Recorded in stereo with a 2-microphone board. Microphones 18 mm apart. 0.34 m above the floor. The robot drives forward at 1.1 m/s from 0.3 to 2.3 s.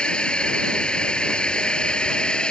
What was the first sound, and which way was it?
A drone, 75° left (ahead or behind).